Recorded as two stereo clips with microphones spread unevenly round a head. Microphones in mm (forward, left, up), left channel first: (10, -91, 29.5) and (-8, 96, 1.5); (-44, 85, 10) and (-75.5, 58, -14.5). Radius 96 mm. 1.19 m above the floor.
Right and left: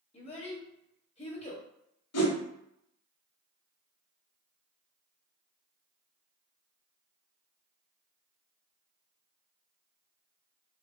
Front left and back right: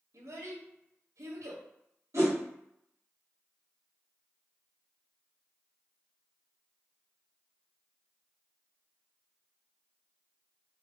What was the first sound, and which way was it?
A child speaking, 140° right.